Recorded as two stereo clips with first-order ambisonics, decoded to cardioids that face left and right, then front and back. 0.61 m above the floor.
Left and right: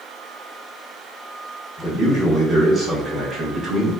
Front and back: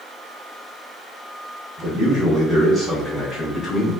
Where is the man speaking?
140° left, 1.1 m; by 3.9 s 40° right, 1.1 m.